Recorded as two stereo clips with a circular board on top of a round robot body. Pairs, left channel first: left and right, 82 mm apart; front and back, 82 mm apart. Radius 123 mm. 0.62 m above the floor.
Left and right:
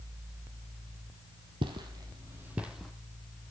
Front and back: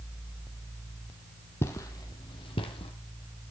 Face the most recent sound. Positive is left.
turn(degrees=0)